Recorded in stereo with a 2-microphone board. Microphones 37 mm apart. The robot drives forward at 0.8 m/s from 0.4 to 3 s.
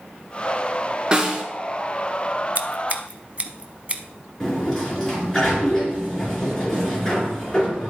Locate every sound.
1.1 s a snare drum: 25° right (ahead or behind), 2 m
2.5 s scissors: 45° right (ahead or behind), 0.6 m; by 4.0 s 35° right (ahead or behind), 0.8 m
4.4 s a sliding door: 15° left (ahead or behind), 3.5 m